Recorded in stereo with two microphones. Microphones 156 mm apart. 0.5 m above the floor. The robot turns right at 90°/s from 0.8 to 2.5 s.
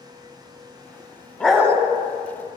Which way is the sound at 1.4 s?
170° left.